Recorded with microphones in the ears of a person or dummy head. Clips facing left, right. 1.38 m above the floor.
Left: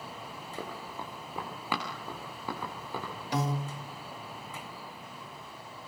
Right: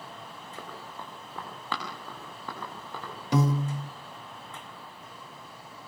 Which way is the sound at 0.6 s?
10° left (ahead or behind).